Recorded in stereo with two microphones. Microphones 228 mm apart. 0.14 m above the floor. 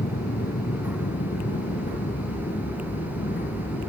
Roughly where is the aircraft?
Left.